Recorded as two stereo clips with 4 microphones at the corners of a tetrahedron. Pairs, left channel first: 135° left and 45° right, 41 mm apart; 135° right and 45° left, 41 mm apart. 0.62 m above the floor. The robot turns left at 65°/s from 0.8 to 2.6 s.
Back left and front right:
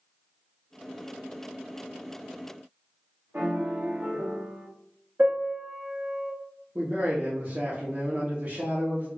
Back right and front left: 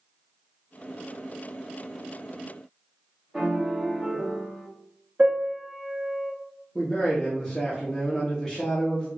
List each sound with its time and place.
3.3 s a piano: 30° right, 1.2 m
5.2 s a piano: 5° right, 1.7 m
6.8 s a man speaking: 50° right, 0.9 m